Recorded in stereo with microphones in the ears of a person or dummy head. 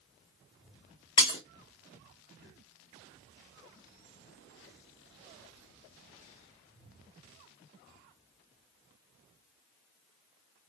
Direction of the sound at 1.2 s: 20° left (ahead or behind).